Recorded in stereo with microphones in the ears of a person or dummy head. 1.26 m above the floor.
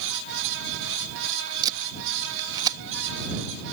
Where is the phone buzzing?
I don't hear a phone buzzing.